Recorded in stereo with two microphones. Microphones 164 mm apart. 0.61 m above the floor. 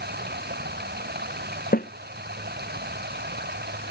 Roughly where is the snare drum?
Left.